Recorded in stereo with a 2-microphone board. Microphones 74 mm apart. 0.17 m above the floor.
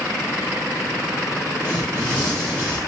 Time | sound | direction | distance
1.6 | tearing paper | 20° left (ahead or behind) | 5 m